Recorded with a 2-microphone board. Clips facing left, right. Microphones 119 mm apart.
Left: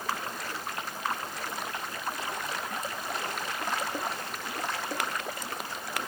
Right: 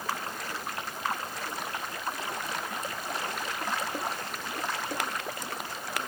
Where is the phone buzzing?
No phone buzzing in this recording.